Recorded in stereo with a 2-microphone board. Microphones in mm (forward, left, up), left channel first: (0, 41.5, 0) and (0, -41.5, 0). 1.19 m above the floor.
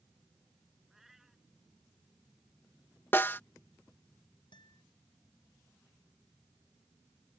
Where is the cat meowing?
5° right (ahead or behind).